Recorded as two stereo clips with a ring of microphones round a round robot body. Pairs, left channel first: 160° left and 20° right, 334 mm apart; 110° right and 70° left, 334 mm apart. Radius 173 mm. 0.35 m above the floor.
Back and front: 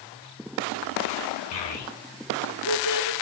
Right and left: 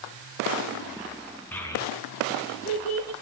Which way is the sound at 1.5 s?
165° left.